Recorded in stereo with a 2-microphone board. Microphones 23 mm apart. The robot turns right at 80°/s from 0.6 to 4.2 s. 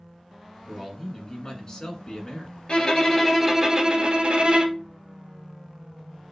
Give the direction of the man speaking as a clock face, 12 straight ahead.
12 o'clock.